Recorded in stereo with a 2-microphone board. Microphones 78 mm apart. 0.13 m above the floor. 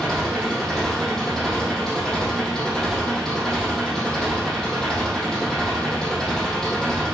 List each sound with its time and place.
0.0 s an engine running: 10° left (ahead or behind), 3.5 m